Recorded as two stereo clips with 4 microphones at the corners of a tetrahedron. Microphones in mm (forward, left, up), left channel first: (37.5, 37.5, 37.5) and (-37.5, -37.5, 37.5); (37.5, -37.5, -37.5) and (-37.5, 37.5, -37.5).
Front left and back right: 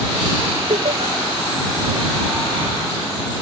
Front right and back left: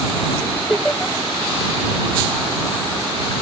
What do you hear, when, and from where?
0.7 s laughter: 135° right